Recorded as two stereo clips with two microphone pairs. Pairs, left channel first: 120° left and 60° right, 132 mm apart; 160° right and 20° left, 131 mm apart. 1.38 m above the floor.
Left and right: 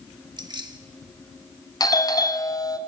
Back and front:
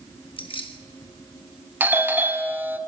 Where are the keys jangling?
115° right, 1.3 m.